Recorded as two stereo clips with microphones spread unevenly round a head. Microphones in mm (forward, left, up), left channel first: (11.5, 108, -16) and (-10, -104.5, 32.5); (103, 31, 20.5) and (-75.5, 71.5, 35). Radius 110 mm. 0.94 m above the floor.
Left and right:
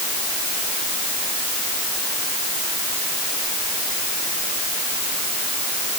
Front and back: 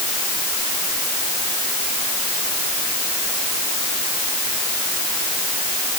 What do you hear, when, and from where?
Only background noise.